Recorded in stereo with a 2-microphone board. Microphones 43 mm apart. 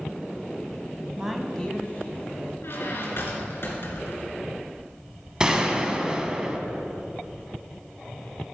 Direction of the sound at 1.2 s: 20° right (ahead or behind).